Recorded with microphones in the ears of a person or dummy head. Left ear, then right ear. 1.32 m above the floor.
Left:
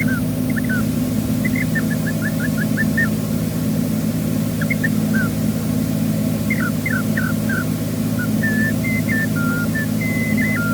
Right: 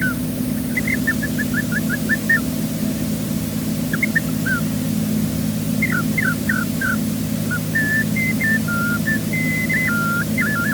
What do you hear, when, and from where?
Only background noise.